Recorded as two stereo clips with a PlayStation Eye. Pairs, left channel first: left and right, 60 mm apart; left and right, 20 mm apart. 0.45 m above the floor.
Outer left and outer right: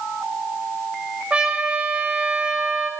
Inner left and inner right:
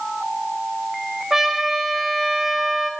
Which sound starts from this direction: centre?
A trumpet, at 1.3 s.